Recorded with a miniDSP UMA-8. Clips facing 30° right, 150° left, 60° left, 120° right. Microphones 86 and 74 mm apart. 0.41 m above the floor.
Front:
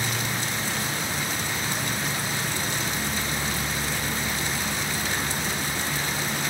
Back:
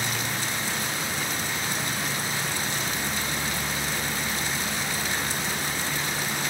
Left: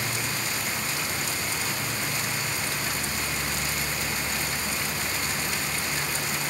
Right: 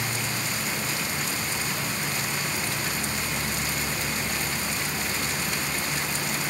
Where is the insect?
110° right, 5.5 m.